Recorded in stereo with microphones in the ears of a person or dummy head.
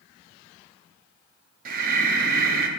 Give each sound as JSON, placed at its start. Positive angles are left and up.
{"t": 1.6, "sound": "breathing", "side_deg": -50, "distance_m": 0.8}